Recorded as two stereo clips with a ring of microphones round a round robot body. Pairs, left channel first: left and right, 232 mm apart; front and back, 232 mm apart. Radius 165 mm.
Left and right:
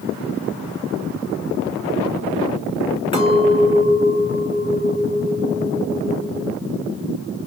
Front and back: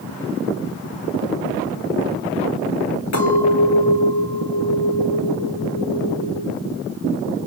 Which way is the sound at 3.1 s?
25° left.